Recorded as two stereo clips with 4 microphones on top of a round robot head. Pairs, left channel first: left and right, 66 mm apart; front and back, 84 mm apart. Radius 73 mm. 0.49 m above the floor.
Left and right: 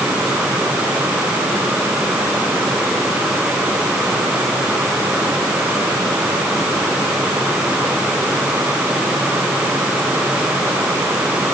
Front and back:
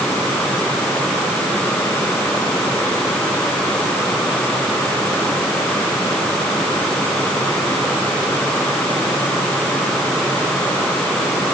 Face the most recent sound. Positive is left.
No sound to turn to.